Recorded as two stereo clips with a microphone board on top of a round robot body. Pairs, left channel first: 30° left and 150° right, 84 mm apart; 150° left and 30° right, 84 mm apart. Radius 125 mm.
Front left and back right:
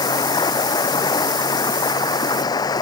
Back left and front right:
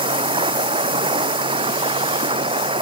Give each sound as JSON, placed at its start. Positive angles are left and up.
{"t": 0.0, "sound": "running water", "azimuth_deg": -15}